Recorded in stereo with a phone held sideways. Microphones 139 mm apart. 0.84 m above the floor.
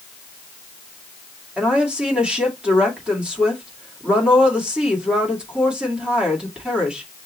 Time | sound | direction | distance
1.6 | a woman speaking | 5° right (ahead or behind) | 2.0 m